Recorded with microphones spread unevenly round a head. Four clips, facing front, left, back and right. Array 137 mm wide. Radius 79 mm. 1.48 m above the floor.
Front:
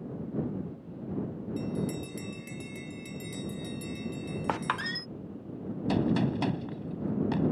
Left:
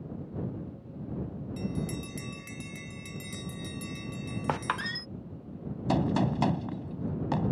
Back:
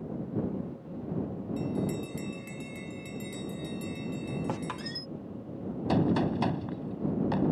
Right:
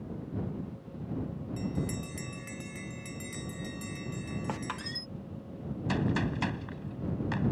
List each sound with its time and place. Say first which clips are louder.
1.6 s a bell: even, back 1 dB; 120° left
4.5 s a squeak: left 6 dB, front 4 dB; 20° left
5.9 s a gunshot: left 4 dB, back 1 dB; 125° left